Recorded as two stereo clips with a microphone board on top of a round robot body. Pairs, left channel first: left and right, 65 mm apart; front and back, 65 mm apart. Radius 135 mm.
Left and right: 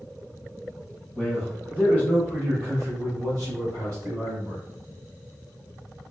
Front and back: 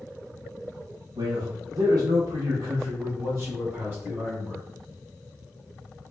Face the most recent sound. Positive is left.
turn(degrees=-105)